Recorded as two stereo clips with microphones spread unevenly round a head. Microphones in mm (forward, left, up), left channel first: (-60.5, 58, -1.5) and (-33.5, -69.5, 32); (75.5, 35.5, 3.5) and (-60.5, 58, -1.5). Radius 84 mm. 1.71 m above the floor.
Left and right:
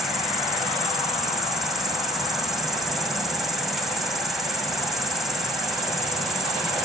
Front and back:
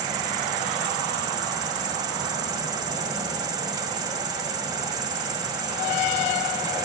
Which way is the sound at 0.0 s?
145° right.